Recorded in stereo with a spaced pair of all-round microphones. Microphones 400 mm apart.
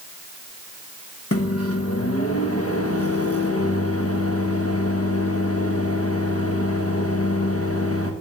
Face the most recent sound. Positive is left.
turn(degrees=35)  # may be behind; listen again after turning